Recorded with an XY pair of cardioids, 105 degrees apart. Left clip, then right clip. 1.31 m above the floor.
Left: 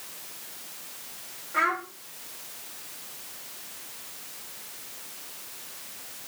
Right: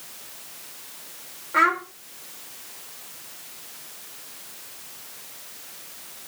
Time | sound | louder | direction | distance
1.5 | a child speaking | right 6 dB | 50° right | 3.5 m